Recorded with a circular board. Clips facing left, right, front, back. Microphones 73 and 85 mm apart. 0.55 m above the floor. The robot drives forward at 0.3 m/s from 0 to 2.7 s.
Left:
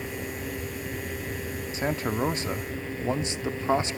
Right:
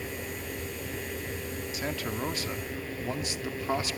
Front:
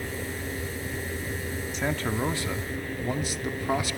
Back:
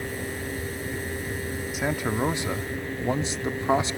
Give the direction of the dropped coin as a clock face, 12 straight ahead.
No dropped coin in this recording.